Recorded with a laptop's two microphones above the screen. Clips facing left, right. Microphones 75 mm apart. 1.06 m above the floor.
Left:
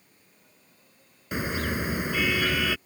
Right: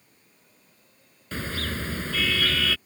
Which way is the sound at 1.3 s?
15° left (ahead or behind).